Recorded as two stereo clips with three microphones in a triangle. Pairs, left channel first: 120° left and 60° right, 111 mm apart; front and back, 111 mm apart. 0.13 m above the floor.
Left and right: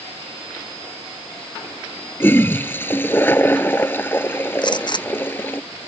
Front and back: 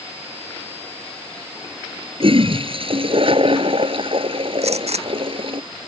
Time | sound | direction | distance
2.2 | a toilet flushing | 175° right | ?
4.6 | a gunshot | 165° left | ?